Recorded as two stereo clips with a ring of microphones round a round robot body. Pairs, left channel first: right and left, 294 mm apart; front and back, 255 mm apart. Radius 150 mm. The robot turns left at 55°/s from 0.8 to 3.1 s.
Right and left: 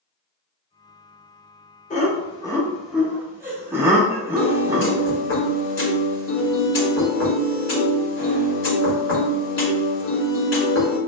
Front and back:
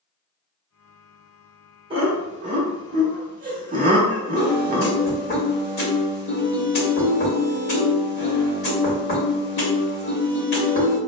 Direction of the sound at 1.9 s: 130° right.